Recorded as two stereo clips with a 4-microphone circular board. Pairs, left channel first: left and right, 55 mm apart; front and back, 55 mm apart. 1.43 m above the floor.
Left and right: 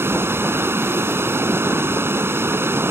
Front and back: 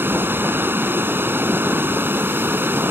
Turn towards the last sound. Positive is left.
turn(degrees=-130)